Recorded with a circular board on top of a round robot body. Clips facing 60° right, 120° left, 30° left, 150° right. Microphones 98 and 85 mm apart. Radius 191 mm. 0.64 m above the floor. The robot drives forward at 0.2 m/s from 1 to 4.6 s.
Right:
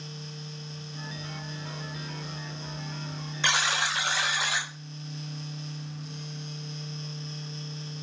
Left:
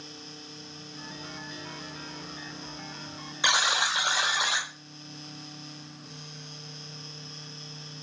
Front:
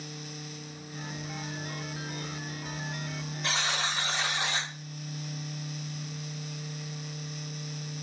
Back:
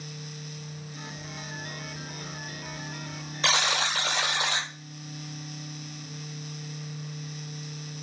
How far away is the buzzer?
About 0.6 m.